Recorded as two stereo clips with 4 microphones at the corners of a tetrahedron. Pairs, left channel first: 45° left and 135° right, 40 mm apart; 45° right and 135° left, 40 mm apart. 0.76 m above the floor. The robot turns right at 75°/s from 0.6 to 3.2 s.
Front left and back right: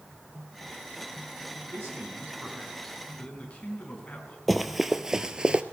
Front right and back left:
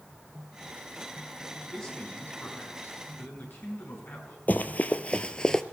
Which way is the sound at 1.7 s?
130° right.